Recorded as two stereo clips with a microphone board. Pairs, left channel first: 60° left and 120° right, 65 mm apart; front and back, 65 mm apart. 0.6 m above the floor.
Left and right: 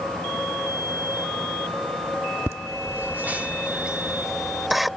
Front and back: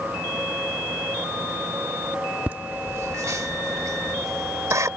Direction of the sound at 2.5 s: 125° right.